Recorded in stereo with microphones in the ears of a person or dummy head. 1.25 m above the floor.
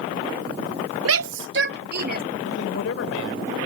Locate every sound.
1.1 s a shout: 75° right (ahead or behind); by 2.2 s 45° right (ahead or behind)
2.4 s a man speaking: 70° left (ahead or behind)